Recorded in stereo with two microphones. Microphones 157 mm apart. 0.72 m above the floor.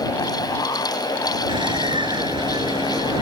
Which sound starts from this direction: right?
A bird, at 1.5 s.